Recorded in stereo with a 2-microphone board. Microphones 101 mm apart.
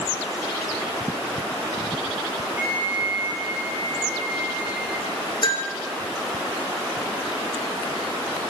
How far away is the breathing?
No breathing in this recording.